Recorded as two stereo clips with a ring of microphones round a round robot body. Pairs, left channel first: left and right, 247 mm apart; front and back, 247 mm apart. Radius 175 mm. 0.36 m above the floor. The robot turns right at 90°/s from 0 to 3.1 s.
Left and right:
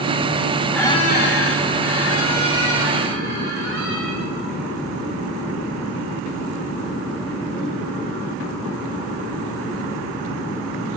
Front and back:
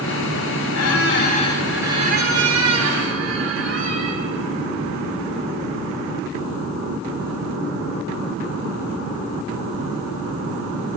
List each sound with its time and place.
0.7 s a squeak: 5° left, 1.9 m; by 4.2 s 145° right, 1.9 m